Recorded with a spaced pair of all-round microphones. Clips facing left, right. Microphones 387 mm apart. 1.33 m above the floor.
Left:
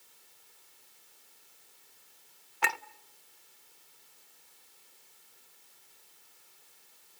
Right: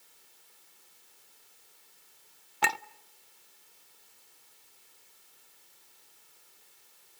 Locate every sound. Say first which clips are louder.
2.6 s a clink: right 3 dB; 50° right (ahead or behind), 0.5 m